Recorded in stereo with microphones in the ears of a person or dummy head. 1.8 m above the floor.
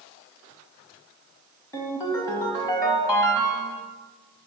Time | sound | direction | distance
1.7 | a ringtone | 20° left (ahead or behind) | 1.3 m